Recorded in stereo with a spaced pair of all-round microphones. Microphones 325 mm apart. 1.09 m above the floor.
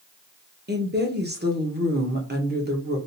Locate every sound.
0.7 s a woman speaking: 30° right (ahead or behind), 0.9 m